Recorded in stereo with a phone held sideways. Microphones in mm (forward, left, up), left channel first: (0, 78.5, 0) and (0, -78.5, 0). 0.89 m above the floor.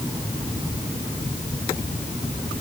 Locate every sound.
Only background noise.